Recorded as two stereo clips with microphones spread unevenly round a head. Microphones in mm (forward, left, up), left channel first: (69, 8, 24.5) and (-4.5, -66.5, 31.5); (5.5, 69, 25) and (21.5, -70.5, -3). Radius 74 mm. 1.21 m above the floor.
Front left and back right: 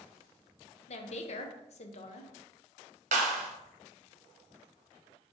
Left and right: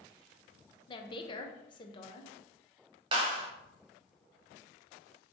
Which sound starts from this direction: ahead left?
A woman speaking, at 0.9 s.